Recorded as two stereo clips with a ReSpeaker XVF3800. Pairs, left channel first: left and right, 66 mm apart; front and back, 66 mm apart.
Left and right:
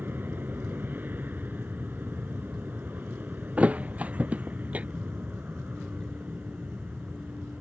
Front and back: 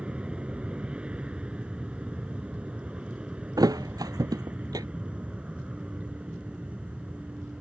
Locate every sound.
0.0 s an aircraft: 115° right; by 7.6 s 125° right
3.6 s a thud: 155° right